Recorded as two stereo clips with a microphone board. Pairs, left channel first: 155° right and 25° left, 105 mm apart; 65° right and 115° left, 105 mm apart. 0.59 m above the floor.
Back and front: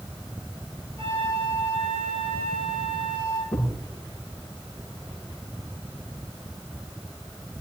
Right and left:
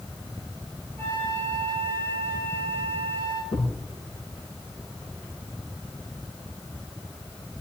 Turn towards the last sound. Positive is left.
turn(degrees=-80)